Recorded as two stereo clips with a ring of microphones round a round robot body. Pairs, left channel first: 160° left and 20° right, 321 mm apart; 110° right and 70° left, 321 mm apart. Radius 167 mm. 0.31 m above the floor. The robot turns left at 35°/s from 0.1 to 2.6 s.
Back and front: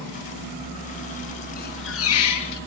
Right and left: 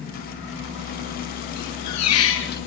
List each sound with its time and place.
1.6 s a squeak: 135° right, 4 m; by 2.6 s 175° right, 4 m